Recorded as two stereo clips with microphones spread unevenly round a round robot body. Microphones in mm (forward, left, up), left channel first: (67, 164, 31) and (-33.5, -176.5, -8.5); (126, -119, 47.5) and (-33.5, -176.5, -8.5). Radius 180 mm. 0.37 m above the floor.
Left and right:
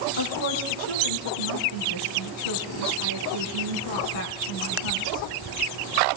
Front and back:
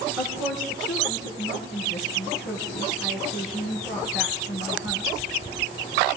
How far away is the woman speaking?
About 3.5 m.